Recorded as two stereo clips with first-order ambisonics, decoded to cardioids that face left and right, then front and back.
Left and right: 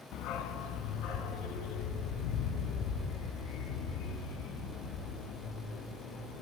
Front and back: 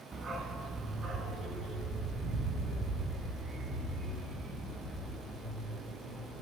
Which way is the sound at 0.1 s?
115° left.